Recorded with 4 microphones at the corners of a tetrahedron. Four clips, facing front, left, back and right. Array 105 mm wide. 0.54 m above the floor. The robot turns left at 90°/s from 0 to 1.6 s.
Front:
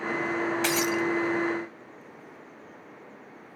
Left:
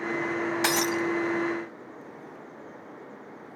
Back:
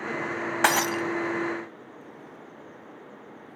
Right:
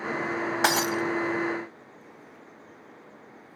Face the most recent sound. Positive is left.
turn(degrees=125)